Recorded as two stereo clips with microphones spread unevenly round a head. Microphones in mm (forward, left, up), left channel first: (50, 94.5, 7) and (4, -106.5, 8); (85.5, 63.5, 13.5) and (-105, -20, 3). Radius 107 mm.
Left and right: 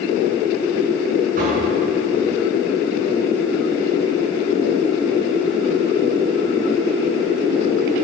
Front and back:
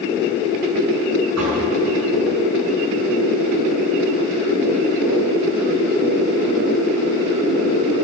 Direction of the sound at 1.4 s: 160° right.